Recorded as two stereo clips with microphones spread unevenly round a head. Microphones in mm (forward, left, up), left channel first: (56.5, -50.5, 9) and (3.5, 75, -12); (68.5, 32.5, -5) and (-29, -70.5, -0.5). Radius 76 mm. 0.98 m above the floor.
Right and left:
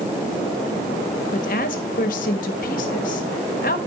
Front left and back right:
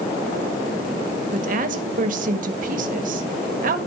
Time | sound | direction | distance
1.3 | a woman speaking | 110° right | 1.5 m